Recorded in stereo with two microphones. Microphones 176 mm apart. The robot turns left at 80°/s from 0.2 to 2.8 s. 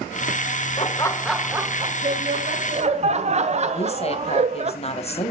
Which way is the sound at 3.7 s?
40° left (ahead or behind).